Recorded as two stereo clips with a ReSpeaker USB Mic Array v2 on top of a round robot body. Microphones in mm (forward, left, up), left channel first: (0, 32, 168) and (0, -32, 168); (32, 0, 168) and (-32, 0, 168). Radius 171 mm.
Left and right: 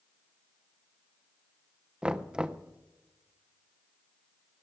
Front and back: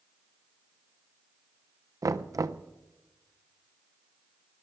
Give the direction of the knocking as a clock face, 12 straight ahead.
5 o'clock.